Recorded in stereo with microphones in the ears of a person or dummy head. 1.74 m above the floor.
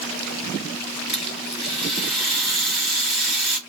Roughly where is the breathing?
No breathing in this recording.